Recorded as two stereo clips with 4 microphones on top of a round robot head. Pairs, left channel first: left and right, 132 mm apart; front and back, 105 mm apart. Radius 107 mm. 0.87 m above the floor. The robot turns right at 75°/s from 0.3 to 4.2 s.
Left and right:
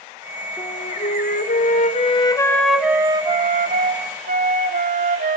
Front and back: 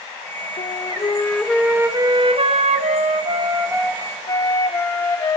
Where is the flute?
20° left, 2.5 m; by 5.4 s 65° right, 2.5 m.